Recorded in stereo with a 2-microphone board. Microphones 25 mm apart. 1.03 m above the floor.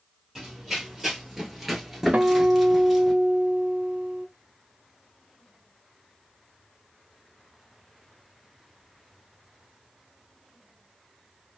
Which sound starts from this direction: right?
A guitar, at 2.1 s.